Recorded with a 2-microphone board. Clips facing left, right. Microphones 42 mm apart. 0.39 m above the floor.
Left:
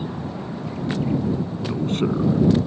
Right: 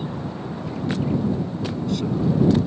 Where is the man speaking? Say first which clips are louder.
Left 4 dB; 40° left (ahead or behind).